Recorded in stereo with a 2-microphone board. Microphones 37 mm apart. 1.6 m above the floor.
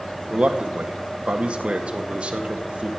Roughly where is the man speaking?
Right.